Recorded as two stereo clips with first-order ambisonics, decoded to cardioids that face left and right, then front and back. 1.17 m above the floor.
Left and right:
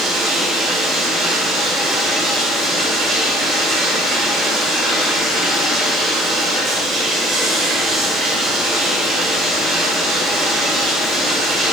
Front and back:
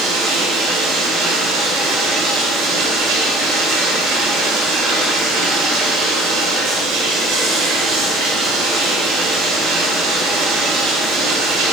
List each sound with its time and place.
0.0 s running water: 160° right, 2.5 m